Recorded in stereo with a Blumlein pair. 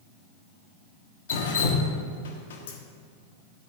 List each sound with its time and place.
1.3 s dripping: 60° left, 1.7 m